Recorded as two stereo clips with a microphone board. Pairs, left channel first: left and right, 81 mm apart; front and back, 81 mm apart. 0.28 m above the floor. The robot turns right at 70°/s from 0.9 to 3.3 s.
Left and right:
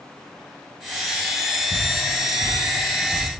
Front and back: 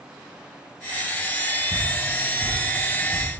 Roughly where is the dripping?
Left.